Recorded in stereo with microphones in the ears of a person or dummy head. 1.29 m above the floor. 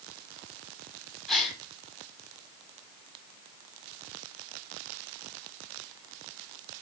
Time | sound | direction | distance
1.3 | a gasp | 5° left (ahead or behind) | 1.4 m